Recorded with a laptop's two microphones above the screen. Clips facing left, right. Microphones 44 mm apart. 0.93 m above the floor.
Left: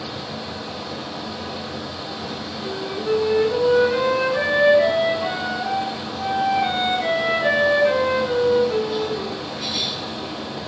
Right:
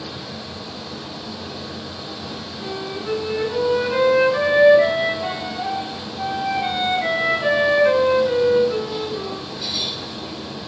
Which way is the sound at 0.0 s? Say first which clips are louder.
Left 2 dB; 60° left (ahead or behind).